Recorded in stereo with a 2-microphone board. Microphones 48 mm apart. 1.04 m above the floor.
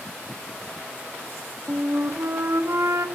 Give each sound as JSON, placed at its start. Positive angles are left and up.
{"t": 1.7, "sound": "a flute", "side_deg": -65, "distance_m": 2.0}